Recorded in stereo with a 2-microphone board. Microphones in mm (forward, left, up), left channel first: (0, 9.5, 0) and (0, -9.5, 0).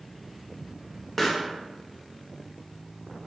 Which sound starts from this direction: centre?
A pop, at 1.2 s.